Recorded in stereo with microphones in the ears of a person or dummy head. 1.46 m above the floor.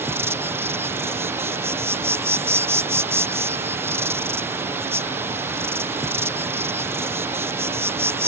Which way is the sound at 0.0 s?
15° right (ahead or behind).